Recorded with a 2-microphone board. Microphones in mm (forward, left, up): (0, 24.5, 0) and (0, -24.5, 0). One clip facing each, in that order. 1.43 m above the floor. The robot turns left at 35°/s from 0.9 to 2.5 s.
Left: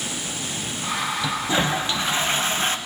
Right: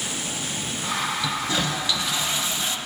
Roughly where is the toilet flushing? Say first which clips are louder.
Left 2 dB; behind left.